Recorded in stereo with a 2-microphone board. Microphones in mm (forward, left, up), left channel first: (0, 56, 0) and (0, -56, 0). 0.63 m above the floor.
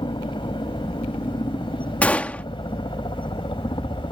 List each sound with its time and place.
0.0 s a helicopter: 45° left (ahead or behind)
2.0 s a gunshot: 15° left (ahead or behind)